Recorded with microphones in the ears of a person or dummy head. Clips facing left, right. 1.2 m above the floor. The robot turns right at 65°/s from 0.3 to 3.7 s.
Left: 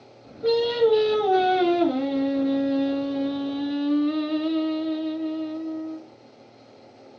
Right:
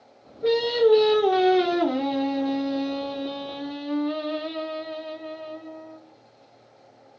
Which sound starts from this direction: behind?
Singing, at 0.4 s.